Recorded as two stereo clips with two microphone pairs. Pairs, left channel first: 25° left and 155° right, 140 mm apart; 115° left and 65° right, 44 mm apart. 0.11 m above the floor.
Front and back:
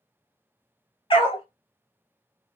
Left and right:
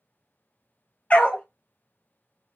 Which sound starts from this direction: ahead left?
A dog barking, at 1.1 s.